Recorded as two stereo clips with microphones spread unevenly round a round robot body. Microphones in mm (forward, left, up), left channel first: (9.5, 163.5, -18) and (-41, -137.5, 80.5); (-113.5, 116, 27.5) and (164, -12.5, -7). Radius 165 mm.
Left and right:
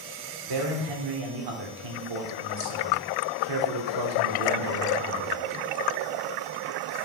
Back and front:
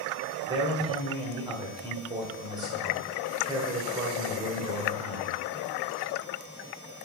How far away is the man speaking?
About 1.9 m.